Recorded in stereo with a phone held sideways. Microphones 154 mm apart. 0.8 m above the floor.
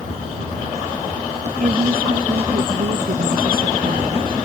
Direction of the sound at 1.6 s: 70° right (ahead or behind).